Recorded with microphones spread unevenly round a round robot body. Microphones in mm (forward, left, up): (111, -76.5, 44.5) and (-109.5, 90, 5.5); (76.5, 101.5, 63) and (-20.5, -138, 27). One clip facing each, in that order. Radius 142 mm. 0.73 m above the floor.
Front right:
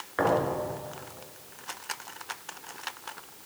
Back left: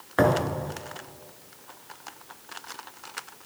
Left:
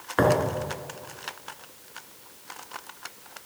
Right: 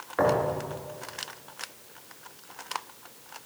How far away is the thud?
About 2.5 m.